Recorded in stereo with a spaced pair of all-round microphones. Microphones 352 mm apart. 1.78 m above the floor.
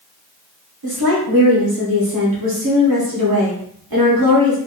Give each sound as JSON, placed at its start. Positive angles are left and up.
{"t": 0.8, "sound": "a woman speaking", "side_deg": -70, "distance_m": 1.3}